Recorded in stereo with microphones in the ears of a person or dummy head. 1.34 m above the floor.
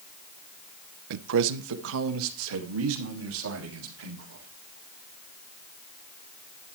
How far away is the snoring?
No snoring in this recording.